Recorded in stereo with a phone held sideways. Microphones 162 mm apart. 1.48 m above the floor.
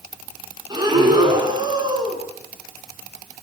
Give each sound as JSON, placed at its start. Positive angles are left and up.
{"t": 0.7, "sound": "breathing", "side_deg": -25, "distance_m": 6.5}